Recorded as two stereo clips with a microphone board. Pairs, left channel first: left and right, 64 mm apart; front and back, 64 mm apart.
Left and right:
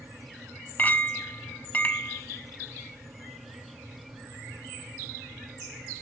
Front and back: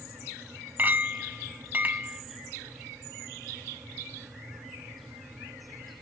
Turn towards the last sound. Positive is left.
turn(degrees=135)